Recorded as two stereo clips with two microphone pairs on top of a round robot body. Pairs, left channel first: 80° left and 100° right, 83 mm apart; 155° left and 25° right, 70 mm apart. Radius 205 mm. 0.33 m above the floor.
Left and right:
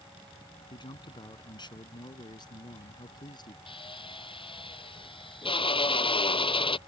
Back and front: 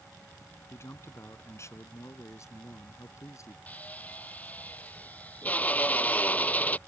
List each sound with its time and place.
0.7 s a man speaking: 105° left; by 3.6 s 115° left
3.7 s a drill: 90° left